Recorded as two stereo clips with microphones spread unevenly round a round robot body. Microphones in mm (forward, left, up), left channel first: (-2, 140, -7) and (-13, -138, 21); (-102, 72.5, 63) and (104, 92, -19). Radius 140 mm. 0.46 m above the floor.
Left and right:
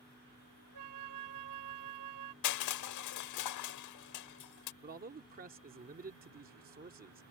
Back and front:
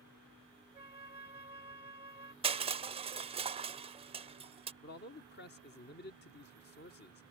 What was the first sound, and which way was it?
A flute, 70° right.